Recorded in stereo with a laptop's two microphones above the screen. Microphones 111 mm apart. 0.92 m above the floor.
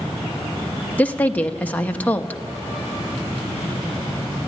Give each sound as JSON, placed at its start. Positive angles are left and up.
{"t": 1.0, "sound": "a woman speaking", "side_deg": 15, "distance_m": 0.7}